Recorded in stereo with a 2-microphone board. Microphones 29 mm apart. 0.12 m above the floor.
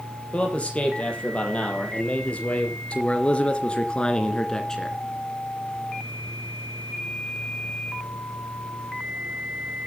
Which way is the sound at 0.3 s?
40° left (ahead or behind).